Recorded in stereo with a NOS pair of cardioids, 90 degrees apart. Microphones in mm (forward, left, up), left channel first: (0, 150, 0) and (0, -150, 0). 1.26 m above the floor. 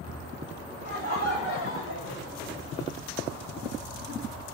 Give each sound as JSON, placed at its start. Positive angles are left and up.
{"t": 0.8, "sound": "laughter", "azimuth_deg": 65, "distance_m": 1.8}